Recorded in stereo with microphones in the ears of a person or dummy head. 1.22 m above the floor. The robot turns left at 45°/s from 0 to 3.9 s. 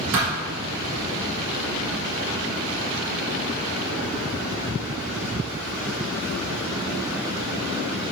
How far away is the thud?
About 3 m.